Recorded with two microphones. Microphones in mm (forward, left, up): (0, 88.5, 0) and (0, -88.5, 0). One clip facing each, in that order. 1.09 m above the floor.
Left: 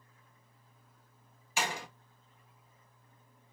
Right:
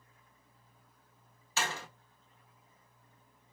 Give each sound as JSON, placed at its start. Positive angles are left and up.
{"t": 1.6, "sound": "a door slam", "side_deg": 15, "distance_m": 1.1}